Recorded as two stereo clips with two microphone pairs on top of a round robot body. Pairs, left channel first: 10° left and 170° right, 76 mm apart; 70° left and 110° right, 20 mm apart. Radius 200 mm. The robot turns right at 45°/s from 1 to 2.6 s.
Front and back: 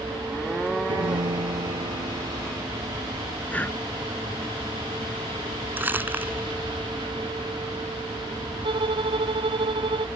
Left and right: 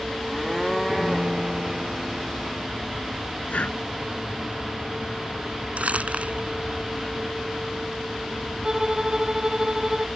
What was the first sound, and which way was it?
A piano, 170° left.